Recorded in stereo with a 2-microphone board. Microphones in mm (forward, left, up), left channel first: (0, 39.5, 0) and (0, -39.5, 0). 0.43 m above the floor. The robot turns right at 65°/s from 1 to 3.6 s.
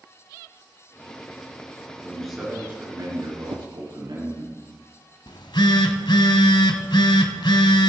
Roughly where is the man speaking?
Behind.